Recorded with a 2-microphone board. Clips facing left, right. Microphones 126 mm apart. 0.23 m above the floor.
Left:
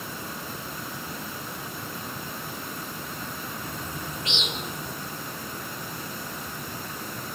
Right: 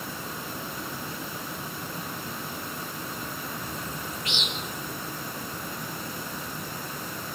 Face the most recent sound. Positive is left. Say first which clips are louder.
# even
turn(degrees=20)  # may be behind; listen again after turning